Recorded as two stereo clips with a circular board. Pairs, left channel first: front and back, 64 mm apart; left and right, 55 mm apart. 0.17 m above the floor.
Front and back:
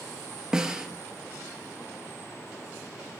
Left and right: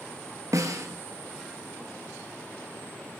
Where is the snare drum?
105° right, 0.5 m.